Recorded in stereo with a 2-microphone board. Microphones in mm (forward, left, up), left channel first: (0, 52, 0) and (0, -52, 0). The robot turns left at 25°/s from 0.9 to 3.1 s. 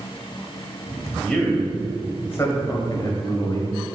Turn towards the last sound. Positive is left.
turn(degrees=40)  # may be behind; listen again after turning